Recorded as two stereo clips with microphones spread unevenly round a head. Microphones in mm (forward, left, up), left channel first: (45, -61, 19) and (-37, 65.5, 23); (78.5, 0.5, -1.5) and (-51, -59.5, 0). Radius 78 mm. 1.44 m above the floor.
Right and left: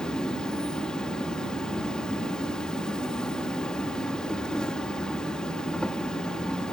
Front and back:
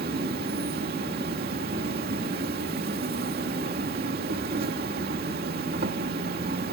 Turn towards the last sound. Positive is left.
turn(degrees=-145)